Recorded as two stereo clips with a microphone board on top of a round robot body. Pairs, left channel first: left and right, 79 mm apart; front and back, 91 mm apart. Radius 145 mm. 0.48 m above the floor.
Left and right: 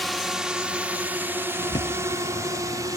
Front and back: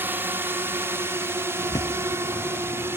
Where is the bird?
50° left.